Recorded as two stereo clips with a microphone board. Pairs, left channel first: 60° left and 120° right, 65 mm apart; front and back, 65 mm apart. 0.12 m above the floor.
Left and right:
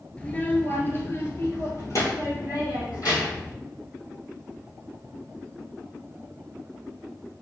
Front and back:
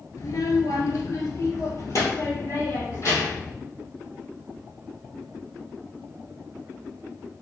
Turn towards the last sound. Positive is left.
turn(degrees=45)